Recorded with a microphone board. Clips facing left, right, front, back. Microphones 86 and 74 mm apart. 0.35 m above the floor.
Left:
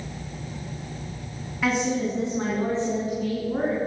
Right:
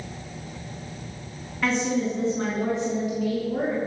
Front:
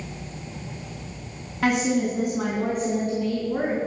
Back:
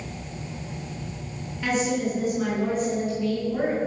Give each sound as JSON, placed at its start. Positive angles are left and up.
{"t": 1.6, "sound": "a woman speaking", "azimuth_deg": 5, "distance_m": 3.5}